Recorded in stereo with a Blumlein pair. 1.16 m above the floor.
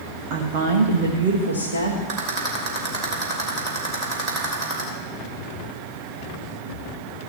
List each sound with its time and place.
0.3 s a woman speaking: 40° right, 1.5 m; by 2.0 s 75° right, 1.9 m
2.1 s a rattle: 45° right, 3 m